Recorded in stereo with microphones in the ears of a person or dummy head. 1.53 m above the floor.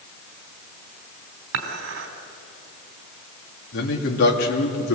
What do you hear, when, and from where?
1.5 s dishes clattering: 75° right (ahead or behind), 3 m
3.7 s a man speaking: 65° left (ahead or behind), 3.5 m